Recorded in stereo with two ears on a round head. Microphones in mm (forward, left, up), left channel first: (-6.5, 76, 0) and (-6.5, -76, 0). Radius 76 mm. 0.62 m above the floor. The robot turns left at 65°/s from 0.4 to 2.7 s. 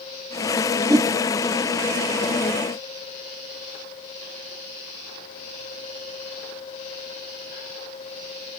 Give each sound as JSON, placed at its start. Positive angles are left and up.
{"t": 0.9, "sound": "a whoosh", "side_deg": -15, "distance_m": 1.4}